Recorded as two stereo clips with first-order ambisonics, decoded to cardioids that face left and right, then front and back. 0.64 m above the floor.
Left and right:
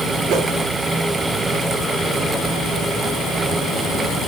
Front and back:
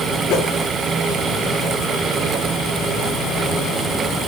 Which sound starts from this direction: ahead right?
A whoosh, at 0.3 s.